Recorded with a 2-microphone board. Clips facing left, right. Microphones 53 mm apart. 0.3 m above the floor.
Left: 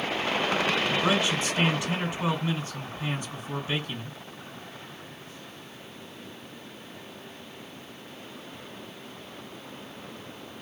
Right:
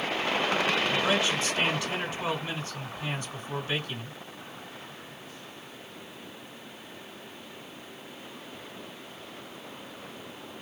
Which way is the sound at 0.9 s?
20° left (ahead or behind).